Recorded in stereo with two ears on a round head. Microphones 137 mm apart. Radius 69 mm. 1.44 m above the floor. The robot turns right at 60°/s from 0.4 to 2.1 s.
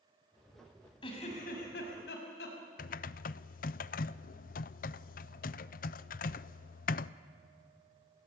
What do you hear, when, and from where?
1.0 s a giggle: 35° left, 6 m; by 2.6 s 100° left, 6 m
2.8 s typing on a keyboard: 60° left (ahead or behind), 0.5 m